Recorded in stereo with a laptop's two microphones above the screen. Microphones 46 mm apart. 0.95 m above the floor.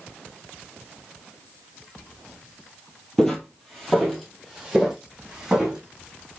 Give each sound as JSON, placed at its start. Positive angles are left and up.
{"t": 3.2, "sound": "footsteps", "side_deg": 15, "distance_m": 1.1}